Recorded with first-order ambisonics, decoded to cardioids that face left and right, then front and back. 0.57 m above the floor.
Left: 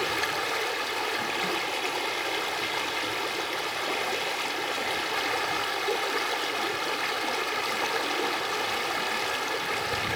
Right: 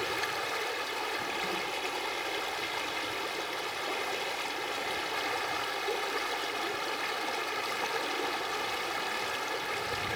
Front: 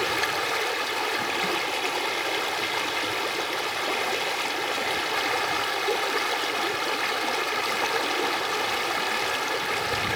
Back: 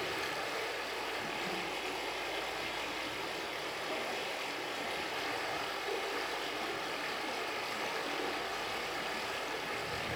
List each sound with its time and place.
0.0 s running water: 20° left, 1.4 m